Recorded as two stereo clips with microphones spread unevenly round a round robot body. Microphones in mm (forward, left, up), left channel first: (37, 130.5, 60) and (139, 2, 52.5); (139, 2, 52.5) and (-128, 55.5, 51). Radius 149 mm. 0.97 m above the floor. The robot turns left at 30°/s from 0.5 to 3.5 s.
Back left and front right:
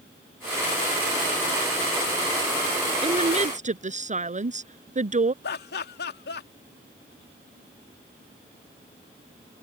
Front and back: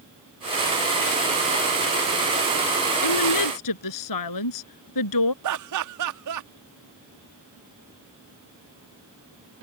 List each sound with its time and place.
3.0 s a woman speaking: 5° left; by 5.3 s 10° right
5.4 s laughter: 160° left